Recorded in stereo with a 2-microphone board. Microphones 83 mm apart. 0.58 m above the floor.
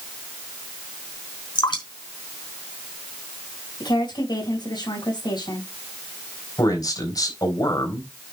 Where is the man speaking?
55° left (ahead or behind), 4 m.